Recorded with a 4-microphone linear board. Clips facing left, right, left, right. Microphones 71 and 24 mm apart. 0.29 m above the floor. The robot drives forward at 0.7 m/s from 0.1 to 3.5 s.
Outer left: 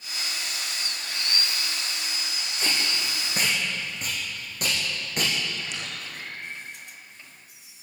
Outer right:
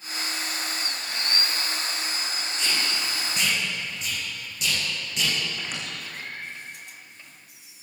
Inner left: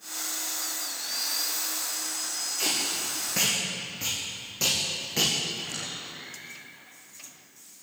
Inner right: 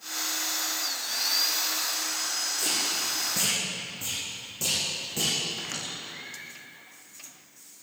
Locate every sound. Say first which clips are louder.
2.6 s tape being pulled: outer left 1 dB, inner left 2 dB; 40° left (ahead or behind), 7 m; by 5.3 s 45° left (ahead or behind), 6.5 m
5.6 s a squeak: outer right 1 dB, even; 45° right (ahead or behind), 7.5 m